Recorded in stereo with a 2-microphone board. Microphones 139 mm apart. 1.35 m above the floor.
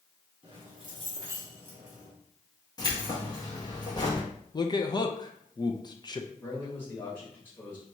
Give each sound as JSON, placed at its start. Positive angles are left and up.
{"t": 0.4, "sound": "keys jangling", "side_deg": -40, "distance_m": 1.7}
{"t": 2.8, "sound": "keys jangling", "side_deg": 30, "distance_m": 1.4}
{"t": 4.5, "sound": "a man speaking", "side_deg": 30, "distance_m": 0.5}
{"t": 6.4, "sound": "a man speaking", "side_deg": 15, "distance_m": 1.7}